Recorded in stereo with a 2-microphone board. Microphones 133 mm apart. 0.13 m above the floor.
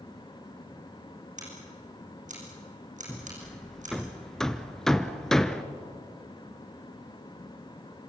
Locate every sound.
1.4 s scissors: 70° right (ahead or behind), 8 m
3.1 s hammering: 5° left (ahead or behind), 1.0 m